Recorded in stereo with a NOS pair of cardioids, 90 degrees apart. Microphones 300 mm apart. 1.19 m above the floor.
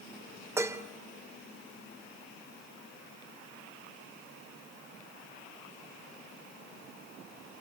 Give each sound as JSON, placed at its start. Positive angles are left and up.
{"t": 0.6, "sound": "dishes clattering", "azimuth_deg": -10, "distance_m": 2.5}